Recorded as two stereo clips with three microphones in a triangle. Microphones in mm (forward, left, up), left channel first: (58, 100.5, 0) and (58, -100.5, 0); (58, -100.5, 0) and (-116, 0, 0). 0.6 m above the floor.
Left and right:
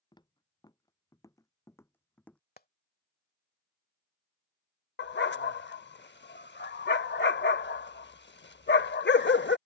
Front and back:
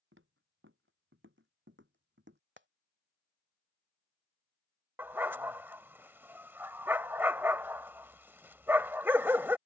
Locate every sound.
0.1 s footsteps: 160° left; by 2.4 s 175° left
2.6 s frying: 130° left
5.0 s a dog barking: 70° left